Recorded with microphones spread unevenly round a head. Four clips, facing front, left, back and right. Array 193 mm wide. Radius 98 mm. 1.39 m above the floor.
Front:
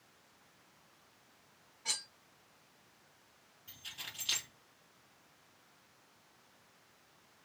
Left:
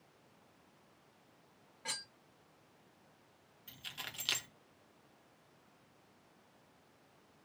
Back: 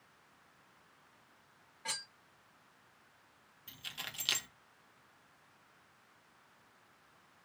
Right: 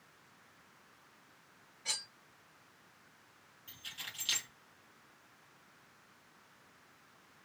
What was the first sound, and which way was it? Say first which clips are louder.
Cutlery clinking: left 1 dB, back 3 dB; 140° left.